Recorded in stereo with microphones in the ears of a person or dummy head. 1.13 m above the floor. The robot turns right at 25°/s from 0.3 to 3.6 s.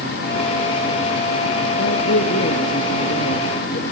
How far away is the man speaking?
About 1.9 m.